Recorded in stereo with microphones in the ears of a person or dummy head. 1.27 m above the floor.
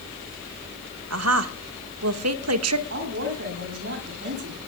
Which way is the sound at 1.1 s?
80° right.